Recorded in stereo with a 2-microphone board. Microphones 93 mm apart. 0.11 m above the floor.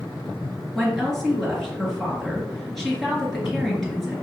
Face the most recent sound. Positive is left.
turn(degrees=0)  # may be behind; listen again after turning